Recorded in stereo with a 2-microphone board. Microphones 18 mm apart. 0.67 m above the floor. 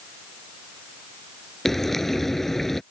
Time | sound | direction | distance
1.6 | frying | 15° left (ahead or behind) | ?